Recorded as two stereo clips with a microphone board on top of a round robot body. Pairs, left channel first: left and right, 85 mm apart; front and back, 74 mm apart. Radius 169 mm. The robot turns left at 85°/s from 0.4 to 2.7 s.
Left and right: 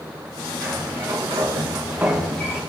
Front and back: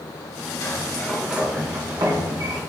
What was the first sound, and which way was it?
A sliding door, 45° right.